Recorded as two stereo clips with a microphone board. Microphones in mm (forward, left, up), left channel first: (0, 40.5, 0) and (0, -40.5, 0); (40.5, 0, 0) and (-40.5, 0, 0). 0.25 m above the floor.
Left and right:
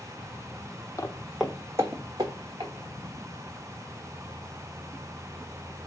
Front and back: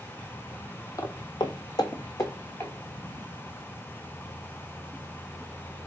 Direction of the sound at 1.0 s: 45° left.